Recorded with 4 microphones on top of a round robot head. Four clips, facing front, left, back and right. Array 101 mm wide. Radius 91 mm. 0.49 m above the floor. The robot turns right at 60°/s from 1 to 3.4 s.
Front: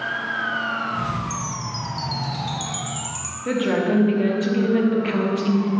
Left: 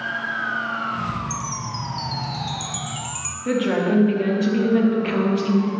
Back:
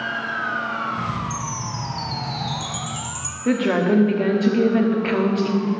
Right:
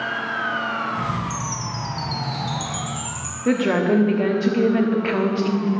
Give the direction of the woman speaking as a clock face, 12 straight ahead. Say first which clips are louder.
Right 2 dB, back 2 dB; 4 o'clock.